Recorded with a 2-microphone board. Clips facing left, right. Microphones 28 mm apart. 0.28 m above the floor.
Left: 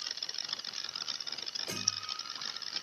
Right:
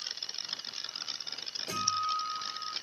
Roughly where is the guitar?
Centre.